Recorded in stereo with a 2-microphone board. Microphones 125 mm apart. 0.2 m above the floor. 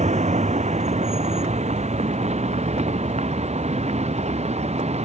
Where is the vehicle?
65° right (ahead or behind); by 5.0 s 60° right (ahead or behind).